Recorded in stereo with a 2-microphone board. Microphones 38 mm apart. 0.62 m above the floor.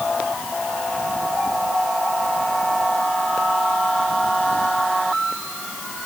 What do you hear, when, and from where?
Only background noise.